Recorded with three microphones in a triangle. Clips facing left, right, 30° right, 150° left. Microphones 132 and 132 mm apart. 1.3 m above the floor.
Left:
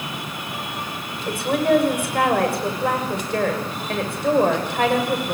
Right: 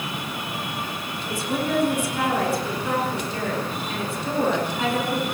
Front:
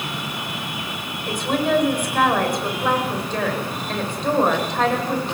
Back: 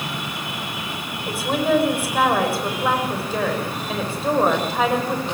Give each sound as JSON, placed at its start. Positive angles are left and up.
{"t": 1.3, "sound": "a woman speaking", "azimuth_deg": 65, "distance_m": 6.0}